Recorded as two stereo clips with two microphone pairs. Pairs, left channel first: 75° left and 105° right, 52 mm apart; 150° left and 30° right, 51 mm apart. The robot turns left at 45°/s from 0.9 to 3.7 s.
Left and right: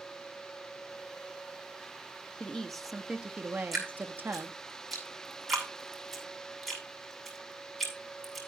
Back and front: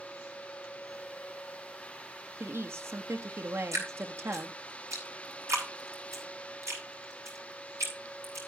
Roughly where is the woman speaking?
Ahead.